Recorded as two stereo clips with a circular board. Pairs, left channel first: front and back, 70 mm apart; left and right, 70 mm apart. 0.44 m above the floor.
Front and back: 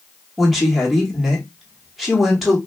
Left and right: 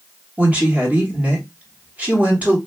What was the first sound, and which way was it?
A woman speaking, 90° right.